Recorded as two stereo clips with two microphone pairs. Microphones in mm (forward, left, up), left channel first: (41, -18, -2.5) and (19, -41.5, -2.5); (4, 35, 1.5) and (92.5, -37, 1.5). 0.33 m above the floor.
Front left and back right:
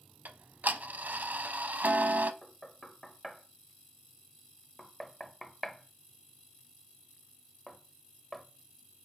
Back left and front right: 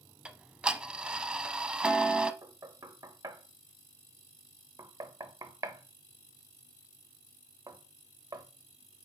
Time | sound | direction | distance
0.2 | ticking | 115° right | 0.6 m
2.4 | knocking | 30° right | 0.8 m